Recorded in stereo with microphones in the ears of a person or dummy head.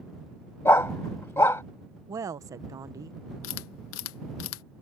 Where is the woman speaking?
15° right (ahead or behind).